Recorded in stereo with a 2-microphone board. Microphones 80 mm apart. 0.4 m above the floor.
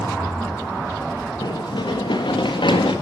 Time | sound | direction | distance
1.4 | running footsteps | 65° left (ahead or behind) | 3 m